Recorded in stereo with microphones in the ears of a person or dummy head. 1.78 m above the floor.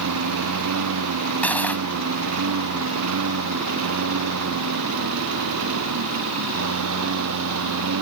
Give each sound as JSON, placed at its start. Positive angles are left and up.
{"t": 0.0, "sound": "a lawn mower", "side_deg": -85}
{"t": 1.4, "sound": "cutlery clinking", "side_deg": 15}